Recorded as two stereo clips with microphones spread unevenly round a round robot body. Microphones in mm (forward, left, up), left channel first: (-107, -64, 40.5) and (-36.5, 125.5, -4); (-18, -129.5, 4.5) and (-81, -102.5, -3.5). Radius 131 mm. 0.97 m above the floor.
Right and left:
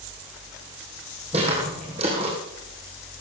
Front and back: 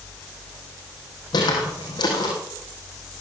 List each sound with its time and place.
1.3 s footsteps: 5° right, 3 m